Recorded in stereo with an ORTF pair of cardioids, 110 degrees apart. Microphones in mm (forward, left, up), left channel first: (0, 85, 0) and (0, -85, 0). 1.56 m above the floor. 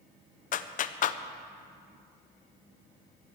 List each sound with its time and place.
0.5 s a clap: 50° left, 0.7 m